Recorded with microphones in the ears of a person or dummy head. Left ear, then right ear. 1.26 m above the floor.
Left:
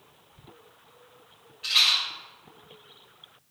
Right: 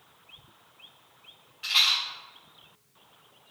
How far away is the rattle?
About 1.4 m.